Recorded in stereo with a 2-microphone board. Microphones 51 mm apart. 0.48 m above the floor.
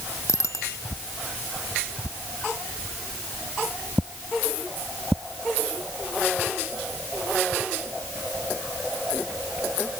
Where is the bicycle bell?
70° left (ahead or behind).